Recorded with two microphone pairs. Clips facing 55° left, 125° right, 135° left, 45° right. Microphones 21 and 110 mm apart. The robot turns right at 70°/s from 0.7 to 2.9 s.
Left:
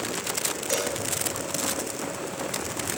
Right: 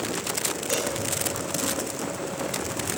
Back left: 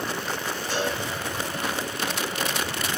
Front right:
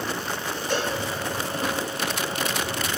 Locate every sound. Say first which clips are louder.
0.7 s a cowbell: even, front right 2 dB; 15° right, 4 m; by 1.0 s 5° left, 4 m